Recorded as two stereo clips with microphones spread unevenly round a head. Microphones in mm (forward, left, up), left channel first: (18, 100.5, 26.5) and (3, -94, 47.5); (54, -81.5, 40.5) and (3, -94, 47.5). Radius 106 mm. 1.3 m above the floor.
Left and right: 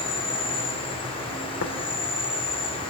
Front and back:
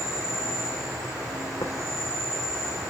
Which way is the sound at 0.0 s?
150° left.